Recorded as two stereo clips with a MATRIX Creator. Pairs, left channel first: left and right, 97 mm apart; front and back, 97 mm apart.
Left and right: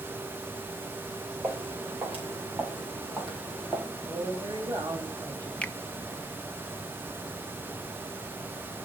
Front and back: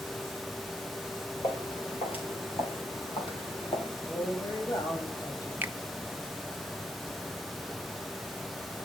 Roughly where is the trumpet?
No trumpet in this recording.